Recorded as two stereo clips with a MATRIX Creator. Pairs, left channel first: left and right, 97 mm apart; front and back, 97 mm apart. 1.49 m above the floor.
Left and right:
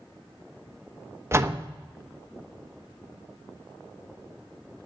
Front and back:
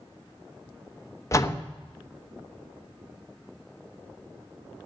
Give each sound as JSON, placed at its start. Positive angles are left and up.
{"t": 1.3, "sound": "a door slam", "azimuth_deg": -40, "distance_m": 0.9}